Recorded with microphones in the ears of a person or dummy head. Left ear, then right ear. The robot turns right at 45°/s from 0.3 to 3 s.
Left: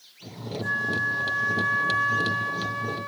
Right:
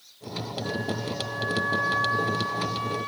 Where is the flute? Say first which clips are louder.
Left 8 dB; 75° left, 3 m; by 3.1 s 175° right, 3 m.